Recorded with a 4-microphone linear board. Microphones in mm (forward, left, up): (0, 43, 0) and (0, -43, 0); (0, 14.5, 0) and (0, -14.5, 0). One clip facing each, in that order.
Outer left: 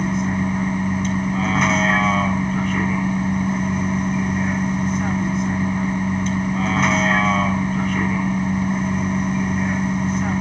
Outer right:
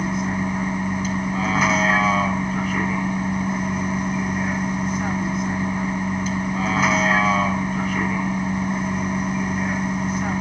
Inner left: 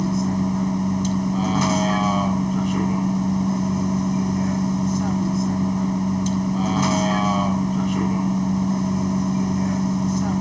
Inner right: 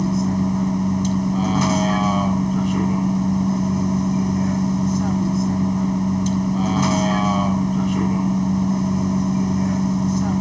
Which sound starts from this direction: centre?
A vehicle, at 0.0 s.